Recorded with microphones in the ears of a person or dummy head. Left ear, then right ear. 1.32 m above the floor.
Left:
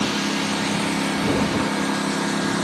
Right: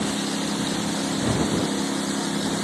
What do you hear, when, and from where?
0.0 s a lawn mower: 55° left (ahead or behind)